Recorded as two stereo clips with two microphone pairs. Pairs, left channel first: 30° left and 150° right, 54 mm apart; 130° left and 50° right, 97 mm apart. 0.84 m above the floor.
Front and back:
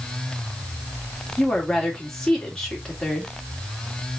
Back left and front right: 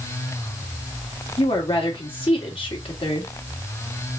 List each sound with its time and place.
1.4 s a woman speaking: 110° left, 2 m